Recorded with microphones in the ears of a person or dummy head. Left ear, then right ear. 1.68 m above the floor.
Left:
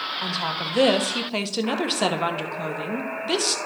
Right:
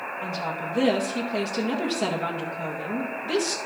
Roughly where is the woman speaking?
Left.